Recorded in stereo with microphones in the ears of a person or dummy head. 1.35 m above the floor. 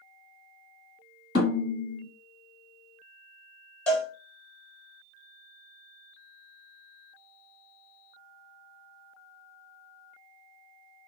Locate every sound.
1.4 s a snare drum: 55° left (ahead or behind), 1.7 m
3.9 s a cowbell: 5° left (ahead or behind), 1.0 m